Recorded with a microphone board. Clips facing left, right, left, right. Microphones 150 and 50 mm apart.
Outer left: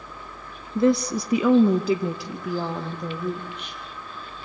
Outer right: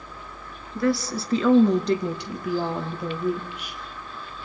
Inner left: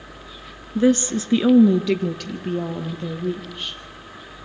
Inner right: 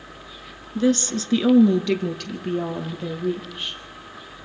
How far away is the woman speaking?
About 1.1 m.